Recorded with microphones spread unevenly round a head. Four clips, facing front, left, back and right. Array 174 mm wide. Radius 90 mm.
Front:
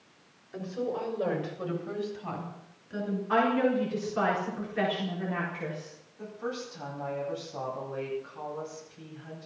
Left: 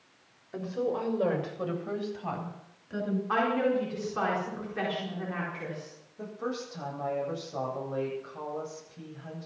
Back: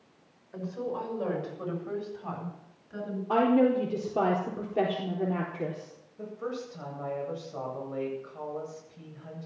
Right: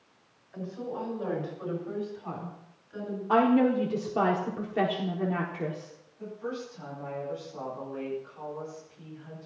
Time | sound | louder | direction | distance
0.5 | a woman speaking | left 5 dB, front 1 dB | 80° left | 6.5 m
3.3 | a woman speaking | right 6 dB, back 3 dB | 140° right | 4 m
6.2 | a woman speaking | left 1 dB, even | 125° left | 9 m